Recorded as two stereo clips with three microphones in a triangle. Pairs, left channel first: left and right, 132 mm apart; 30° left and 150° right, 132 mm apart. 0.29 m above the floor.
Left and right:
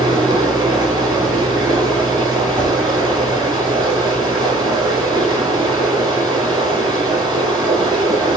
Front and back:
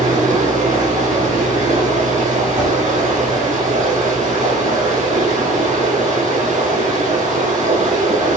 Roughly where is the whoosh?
Right.